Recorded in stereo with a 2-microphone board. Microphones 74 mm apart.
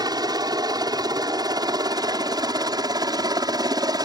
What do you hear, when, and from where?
0.0 s a helicopter: 65° right (ahead or behind)